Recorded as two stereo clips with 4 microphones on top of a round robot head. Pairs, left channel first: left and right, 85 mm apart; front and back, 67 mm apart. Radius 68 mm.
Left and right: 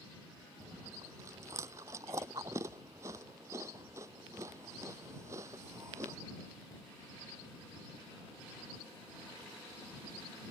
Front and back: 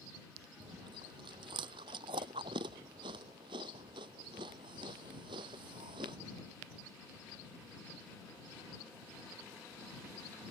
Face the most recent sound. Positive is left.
turn(degrees=-155)